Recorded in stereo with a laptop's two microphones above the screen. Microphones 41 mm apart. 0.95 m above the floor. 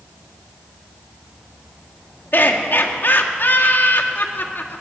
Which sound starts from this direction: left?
Laughter, at 2.3 s.